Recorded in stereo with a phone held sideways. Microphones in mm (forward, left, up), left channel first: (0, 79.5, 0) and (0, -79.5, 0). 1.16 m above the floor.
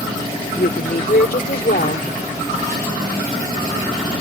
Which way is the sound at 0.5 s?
75° left (ahead or behind).